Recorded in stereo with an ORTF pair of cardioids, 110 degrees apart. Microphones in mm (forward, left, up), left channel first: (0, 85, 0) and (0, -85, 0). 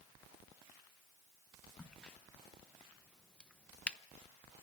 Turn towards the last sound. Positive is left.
turn(degrees=5)